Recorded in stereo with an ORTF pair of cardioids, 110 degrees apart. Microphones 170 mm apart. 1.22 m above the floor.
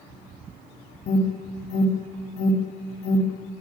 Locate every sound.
1.1 s an alarm: 45° left, 4.5 m